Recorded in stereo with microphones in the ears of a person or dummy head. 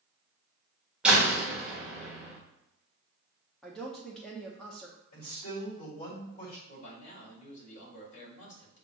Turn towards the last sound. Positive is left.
turn(degrees=45)  # may be behind; listen again after turning